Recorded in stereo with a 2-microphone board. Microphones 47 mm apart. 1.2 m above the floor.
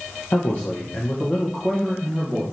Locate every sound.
0.3 s a man speaking: 60° left (ahead or behind), 1.2 m; by 2.4 s 10° right (ahead or behind), 1.5 m